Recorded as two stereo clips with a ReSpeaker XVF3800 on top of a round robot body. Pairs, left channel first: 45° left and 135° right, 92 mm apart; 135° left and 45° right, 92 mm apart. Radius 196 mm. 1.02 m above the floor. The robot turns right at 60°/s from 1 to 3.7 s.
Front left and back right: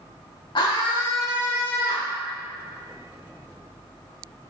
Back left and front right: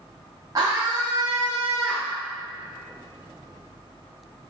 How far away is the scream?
About 0.6 m.